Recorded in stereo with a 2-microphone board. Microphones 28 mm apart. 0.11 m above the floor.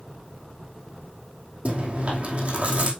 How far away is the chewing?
About 2.5 m.